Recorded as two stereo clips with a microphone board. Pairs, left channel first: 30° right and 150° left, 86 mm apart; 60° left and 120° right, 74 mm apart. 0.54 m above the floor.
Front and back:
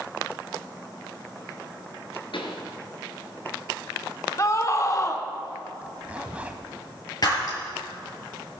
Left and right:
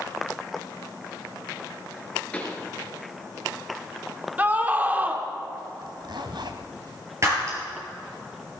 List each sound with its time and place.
2.3 s a pop: 15° right, 2.5 m
4.4 s a scream: 60° right, 1.5 m
5.8 s a zipper: 135° right, 1.4 m
7.2 s breaking glass: 70° right, 6.5 m